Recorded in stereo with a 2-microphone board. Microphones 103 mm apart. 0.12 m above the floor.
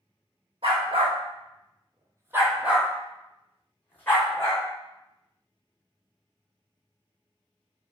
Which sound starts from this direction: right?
A dog barking, at 0.6 s.